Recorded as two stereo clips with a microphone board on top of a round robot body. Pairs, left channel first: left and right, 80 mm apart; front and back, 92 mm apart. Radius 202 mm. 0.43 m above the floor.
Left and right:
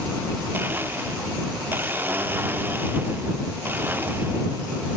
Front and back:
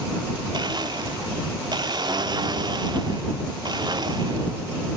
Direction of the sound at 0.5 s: 150° right.